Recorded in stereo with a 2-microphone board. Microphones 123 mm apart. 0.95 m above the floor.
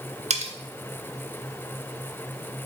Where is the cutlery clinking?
65° right (ahead or behind), 1.0 m.